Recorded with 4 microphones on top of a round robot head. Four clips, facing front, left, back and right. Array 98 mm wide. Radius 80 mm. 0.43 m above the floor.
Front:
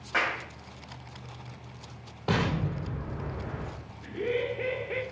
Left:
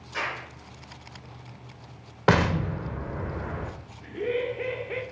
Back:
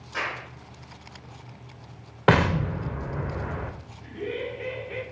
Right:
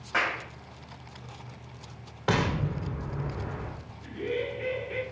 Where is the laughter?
50° left, 1.9 m.